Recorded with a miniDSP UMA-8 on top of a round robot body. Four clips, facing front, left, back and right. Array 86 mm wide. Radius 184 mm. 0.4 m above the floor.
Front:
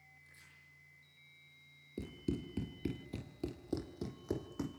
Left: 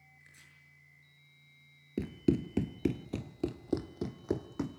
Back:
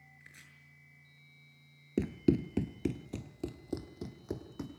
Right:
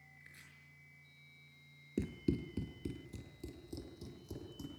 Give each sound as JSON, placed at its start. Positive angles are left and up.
{"t": 0.2, "sound": "chopping", "azimuth_deg": -170, "distance_m": 7.5}
{"t": 2.0, "sound": "running footsteps", "azimuth_deg": 170, "distance_m": 0.5}